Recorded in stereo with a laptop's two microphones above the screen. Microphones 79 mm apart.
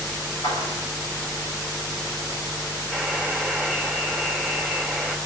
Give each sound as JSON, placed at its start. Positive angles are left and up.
{"t": 0.4, "sound": "a clap", "side_deg": 90, "distance_m": 7.5}
{"t": 2.9, "sound": "a buzzer", "side_deg": 10, "distance_m": 2.5}